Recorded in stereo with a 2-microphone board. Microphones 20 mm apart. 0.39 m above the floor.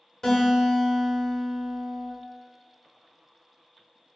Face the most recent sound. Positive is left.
turn(degrees=30)  # may be behind; listen again after turning